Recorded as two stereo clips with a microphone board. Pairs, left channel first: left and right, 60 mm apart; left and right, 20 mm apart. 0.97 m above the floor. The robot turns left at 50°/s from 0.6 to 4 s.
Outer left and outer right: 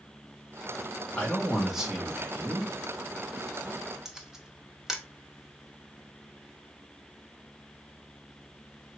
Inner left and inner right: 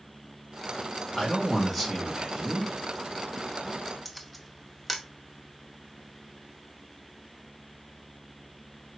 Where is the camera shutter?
5° right (ahead or behind), 0.8 m.